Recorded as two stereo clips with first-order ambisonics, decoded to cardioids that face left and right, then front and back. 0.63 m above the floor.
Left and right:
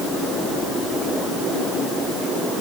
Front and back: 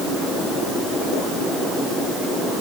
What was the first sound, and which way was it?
Only background noise.